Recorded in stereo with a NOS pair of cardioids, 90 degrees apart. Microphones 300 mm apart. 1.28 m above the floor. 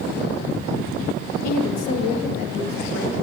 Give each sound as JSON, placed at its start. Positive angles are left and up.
{"t": 1.4, "sound": "a woman speaking", "azimuth_deg": 60, "distance_m": 0.9}